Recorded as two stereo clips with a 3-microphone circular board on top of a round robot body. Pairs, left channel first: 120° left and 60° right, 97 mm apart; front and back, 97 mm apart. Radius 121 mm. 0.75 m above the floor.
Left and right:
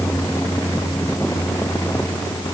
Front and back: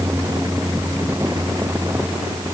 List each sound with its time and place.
Only background noise.